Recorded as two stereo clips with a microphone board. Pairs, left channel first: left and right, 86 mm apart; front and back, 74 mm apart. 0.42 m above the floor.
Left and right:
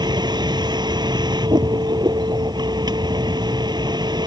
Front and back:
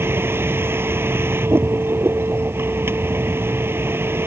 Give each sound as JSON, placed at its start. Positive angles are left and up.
{"t": 0.0, "sound": "a vehicle", "azimuth_deg": -120}